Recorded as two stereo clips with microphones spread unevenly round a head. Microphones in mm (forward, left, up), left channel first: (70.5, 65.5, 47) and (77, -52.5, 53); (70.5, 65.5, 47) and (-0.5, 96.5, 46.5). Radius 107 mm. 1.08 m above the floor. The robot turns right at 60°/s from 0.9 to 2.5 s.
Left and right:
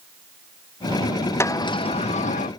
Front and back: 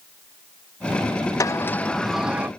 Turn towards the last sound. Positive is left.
turn(degrees=90)